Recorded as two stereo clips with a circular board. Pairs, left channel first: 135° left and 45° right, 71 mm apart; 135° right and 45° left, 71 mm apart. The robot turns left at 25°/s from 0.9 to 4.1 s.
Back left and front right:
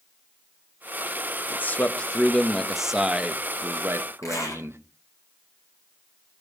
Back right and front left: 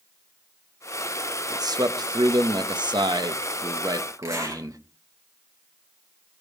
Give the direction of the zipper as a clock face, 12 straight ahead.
9 o'clock.